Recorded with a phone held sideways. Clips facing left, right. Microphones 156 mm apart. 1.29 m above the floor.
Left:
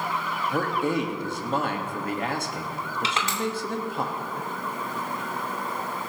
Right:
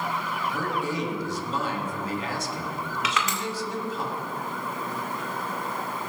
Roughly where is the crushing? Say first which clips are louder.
Right 1 dB; left.